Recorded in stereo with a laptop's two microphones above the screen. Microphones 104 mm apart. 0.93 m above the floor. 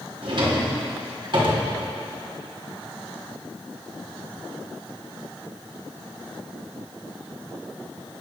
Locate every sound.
0.2 s a drawer: 50° right (ahead or behind), 1.0 m